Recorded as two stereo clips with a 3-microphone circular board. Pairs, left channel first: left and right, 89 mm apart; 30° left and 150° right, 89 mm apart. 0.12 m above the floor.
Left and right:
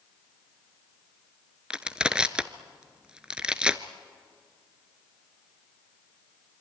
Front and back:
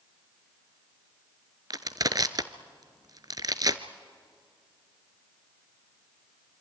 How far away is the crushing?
About 0.9 m.